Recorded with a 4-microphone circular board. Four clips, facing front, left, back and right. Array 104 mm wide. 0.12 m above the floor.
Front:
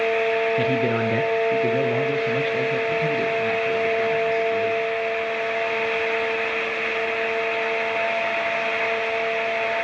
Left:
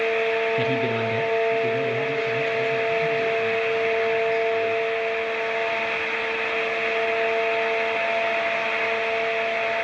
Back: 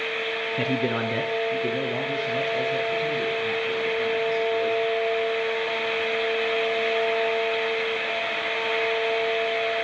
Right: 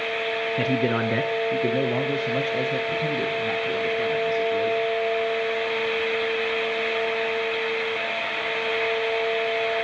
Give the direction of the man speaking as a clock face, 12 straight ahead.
4 o'clock.